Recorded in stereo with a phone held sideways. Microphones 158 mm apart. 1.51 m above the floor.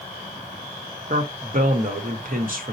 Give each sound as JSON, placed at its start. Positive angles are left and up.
{"t": 1.1, "sound": "a man speaking", "side_deg": -65, "distance_m": 0.8}